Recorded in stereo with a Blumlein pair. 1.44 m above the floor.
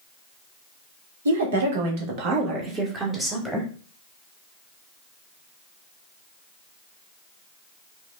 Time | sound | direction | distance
1.2 | a woman speaking | 65° right | 1.6 m